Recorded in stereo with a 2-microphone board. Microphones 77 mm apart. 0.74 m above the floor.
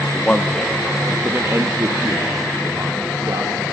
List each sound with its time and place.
0.1 s a man speaking: 15° left (ahead or behind), 1.4 m; by 3.6 s 60° right (ahead or behind), 2.5 m